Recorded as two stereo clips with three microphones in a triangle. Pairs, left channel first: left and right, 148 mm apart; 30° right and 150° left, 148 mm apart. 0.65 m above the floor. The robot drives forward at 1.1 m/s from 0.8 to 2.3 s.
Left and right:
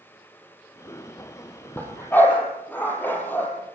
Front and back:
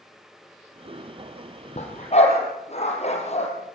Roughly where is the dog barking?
Ahead.